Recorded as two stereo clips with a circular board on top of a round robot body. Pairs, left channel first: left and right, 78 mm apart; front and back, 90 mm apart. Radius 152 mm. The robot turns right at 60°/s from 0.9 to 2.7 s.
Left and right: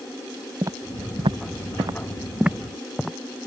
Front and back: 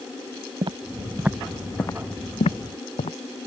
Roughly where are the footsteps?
Behind right.